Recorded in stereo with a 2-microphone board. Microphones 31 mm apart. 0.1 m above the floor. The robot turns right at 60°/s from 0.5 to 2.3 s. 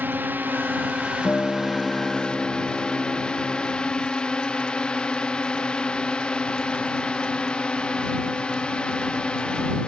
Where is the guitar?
115° left; by 3.7 s 175° left.